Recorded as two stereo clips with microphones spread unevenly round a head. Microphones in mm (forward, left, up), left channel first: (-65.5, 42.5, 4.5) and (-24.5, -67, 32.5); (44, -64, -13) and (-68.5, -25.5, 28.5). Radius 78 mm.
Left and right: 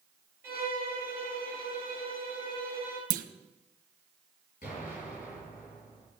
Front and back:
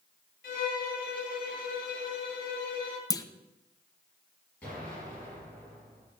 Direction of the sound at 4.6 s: 65° left.